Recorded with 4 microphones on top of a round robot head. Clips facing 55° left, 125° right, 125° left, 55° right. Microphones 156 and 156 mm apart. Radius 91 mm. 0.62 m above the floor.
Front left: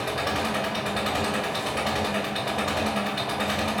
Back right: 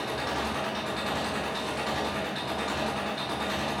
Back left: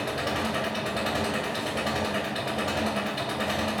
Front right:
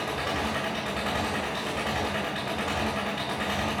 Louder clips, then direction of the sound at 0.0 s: Front left 4 dB, back left 1 dB; 80° left.